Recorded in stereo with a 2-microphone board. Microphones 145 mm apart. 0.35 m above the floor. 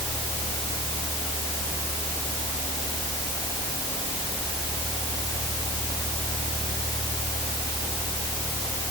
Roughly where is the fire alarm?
I don't hear a fire alarm.